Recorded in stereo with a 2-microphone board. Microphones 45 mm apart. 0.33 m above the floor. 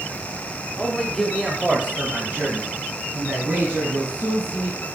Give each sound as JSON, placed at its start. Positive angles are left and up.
{"t": 0.8, "sound": "a man speaking", "side_deg": 25, "distance_m": 1.1}